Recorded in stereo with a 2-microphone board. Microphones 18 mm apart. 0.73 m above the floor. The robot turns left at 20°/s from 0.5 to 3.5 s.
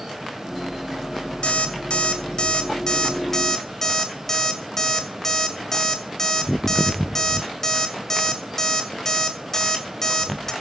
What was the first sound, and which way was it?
An alarm clock, 65° left (ahead or behind).